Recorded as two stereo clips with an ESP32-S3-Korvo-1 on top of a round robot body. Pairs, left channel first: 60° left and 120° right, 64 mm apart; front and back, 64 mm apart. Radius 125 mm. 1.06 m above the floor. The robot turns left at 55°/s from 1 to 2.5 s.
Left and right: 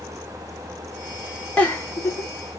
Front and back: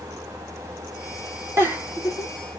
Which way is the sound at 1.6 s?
130° left.